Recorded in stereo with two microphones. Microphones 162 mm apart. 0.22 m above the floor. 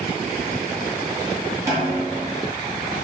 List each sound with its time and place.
1.7 s a snare drum: 20° right (ahead or behind), 1.7 m